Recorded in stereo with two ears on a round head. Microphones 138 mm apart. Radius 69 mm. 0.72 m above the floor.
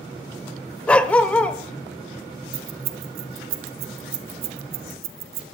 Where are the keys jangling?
70° right (ahead or behind), 1.8 m.